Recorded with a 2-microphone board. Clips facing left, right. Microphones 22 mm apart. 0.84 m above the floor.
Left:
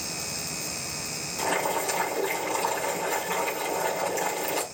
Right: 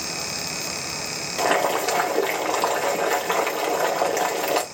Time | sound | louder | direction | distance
1.4 | boiling | right 6 dB | 90° right | 2.0 m